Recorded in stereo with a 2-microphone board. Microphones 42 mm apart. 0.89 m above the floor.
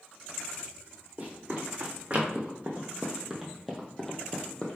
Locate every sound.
1.2 s running footsteps: 40° right (ahead or behind), 1.9 m; by 4.8 s 30° left (ahead or behind), 1.2 m